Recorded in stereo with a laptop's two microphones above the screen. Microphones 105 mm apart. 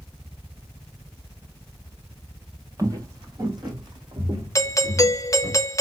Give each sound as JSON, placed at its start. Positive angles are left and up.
{"t": 2.8, "sound": "footsteps", "side_deg": -30, "distance_m": 1.3}
{"t": 4.5, "sound": "a doorbell", "side_deg": 30, "distance_m": 0.7}